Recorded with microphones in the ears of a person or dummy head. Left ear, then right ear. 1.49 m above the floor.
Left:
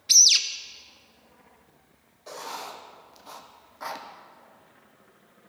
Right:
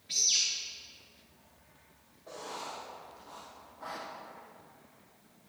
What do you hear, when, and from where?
0.1 s a bird: 70° left (ahead or behind), 0.6 m
2.3 s writing: 70° left (ahead or behind), 0.8 m